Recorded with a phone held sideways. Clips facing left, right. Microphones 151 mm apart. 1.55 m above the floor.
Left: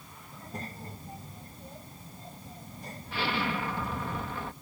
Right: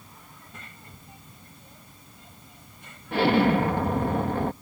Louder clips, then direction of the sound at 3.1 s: Right 12 dB; 55° right (ahead or behind).